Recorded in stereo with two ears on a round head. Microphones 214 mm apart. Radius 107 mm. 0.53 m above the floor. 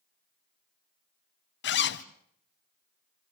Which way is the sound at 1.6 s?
45° left (ahead or behind).